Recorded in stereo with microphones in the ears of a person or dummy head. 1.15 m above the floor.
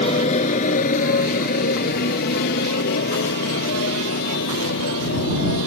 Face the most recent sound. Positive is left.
turn(degrees=60)  # may be behind; listen again after turning